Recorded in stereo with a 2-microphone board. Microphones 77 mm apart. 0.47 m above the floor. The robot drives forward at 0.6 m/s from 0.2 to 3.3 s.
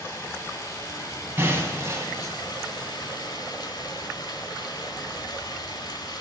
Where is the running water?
35° left (ahead or behind), 2.5 m; by 6.2 s 65° left (ahead or behind), 1.5 m.